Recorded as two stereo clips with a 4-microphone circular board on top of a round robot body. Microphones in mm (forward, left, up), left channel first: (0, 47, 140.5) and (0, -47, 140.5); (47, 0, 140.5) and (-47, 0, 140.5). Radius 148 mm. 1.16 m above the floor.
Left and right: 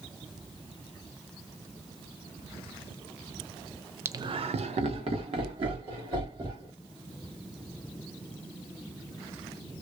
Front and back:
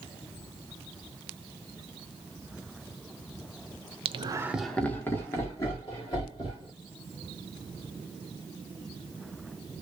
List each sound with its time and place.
4.0 s laughter: 155° right, 0.5 m; by 6.7 s 50° right, 2.5 m